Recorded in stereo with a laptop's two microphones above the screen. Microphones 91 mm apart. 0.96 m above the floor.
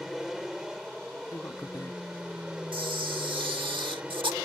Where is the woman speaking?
35° left (ahead or behind).